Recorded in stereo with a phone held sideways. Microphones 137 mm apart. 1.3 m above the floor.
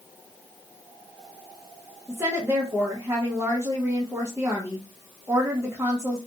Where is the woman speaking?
15° right (ahead or behind), 0.6 m.